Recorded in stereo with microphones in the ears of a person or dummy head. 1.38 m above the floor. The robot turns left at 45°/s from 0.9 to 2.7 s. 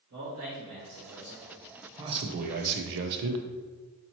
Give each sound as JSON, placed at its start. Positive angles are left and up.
{"t": 0.1, "sound": "a man speaking", "side_deg": -75, "distance_m": 1.8}
{"t": 2.0, "sound": "a man speaking", "azimuth_deg": -25, "distance_m": 0.6}